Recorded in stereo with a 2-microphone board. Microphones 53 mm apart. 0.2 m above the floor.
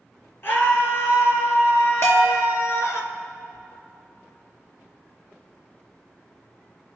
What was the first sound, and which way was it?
A scream, 45° left (ahead or behind).